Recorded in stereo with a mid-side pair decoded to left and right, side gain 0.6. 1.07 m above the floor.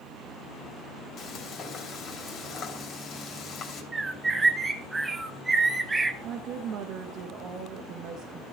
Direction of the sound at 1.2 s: 45° left.